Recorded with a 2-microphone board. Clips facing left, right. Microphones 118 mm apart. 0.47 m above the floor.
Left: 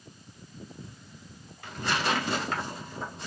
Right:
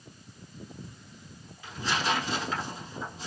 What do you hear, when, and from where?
1.6 s tearing paper: 70° left (ahead or behind), 0.9 m